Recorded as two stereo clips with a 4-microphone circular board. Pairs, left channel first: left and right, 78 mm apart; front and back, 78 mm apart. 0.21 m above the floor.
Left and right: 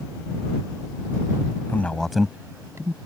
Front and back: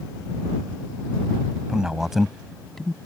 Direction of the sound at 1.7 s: 110° left.